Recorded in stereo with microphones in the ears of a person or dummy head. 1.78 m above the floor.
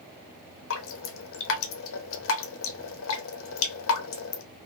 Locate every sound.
0.7 s dripping: 65° left (ahead or behind), 0.7 m